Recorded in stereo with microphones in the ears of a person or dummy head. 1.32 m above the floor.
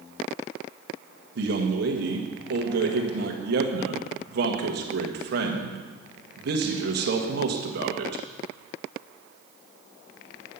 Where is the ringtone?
No ringtone in this recording.